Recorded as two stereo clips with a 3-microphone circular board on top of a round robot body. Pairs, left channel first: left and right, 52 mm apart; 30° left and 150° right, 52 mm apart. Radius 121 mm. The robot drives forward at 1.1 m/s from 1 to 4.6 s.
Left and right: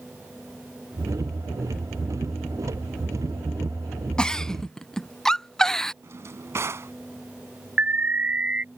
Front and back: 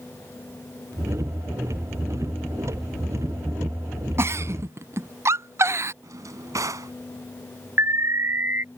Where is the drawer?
130° right.